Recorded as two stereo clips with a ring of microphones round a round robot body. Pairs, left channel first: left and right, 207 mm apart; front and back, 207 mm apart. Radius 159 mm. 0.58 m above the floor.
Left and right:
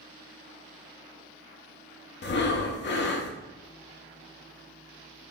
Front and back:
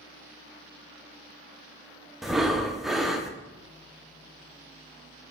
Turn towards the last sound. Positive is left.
turn(degrees=90)